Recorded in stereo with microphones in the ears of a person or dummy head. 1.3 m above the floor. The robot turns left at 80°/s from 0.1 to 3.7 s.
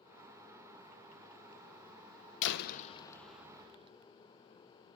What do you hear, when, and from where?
2.4 s a door slam: 70° left, 0.5 m; by 3.9 s 30° right, 0.5 m